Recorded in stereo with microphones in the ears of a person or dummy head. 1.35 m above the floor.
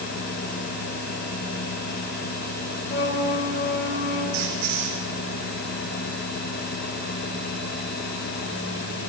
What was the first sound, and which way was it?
A flute, 65° left (ahead or behind).